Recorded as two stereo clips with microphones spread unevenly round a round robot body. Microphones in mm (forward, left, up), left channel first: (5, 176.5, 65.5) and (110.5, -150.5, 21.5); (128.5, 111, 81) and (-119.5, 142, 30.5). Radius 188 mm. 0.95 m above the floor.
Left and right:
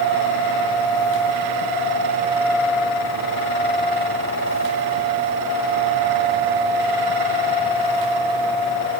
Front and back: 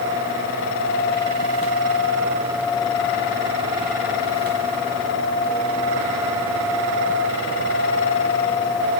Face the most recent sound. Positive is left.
No sound to turn to.